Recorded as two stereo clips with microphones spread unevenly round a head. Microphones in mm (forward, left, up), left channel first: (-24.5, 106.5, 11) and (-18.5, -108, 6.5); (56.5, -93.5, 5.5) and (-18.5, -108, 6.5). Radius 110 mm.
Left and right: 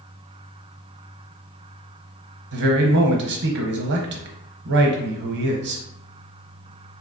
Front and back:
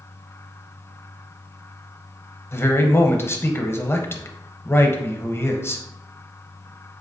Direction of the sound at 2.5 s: 50° right.